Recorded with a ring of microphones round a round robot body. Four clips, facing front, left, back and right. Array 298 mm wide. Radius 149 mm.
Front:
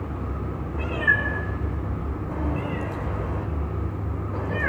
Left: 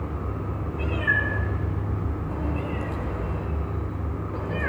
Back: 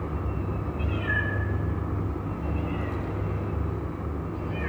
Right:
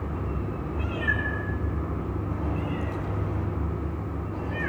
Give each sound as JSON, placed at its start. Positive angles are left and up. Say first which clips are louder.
{"t": 0.7, "sound": "a cat meowing", "louder": "left 5 dB, front 8 dB", "azimuth_deg": 25, "distance_m": 10.0}